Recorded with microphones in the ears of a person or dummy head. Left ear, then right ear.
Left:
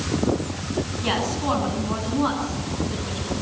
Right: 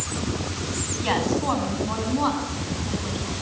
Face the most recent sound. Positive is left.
turn(degrees=-15)  # may be behind; listen again after turning